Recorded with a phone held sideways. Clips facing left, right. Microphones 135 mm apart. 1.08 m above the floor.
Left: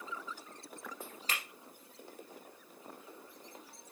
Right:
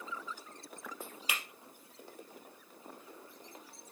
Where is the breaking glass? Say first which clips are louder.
Even; 10° right (ahead or behind), 3 m.